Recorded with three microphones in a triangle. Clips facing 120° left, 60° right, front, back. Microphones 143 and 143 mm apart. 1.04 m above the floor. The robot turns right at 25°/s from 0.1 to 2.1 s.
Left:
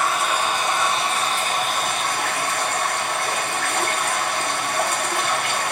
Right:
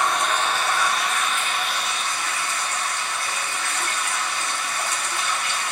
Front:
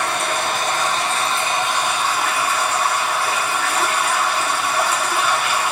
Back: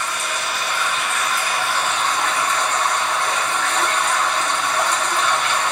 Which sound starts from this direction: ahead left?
Running water, at 0.0 s.